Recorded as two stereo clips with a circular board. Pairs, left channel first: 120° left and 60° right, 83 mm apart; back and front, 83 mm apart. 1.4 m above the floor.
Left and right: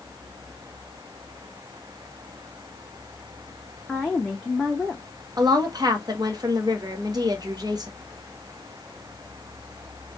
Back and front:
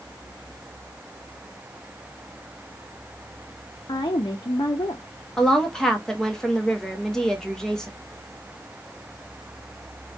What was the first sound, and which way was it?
A woman speaking, 155° right.